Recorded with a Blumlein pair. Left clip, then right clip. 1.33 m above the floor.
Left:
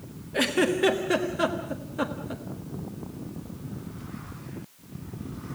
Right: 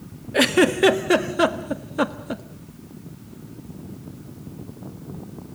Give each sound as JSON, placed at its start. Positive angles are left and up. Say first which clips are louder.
{"t": 0.3, "sound": "a giggle", "louder": "right 6 dB", "azimuth_deg": -70, "distance_m": 1.4}